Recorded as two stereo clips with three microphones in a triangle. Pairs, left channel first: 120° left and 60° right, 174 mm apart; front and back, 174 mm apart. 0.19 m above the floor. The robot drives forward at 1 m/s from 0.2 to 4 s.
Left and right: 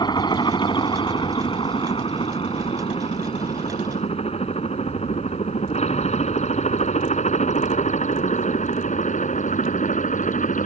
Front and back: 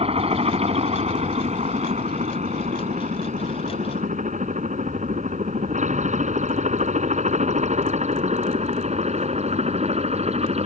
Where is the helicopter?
165° left; by 10.7 s 140° left.